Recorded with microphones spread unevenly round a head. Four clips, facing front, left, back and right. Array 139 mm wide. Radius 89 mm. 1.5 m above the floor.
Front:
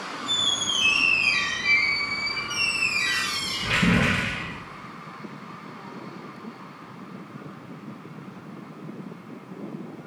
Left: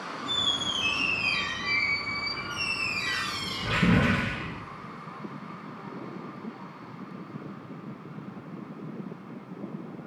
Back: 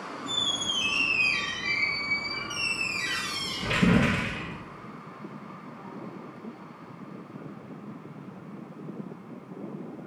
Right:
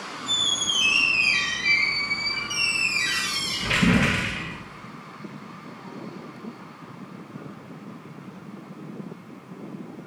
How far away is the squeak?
About 0.9 m.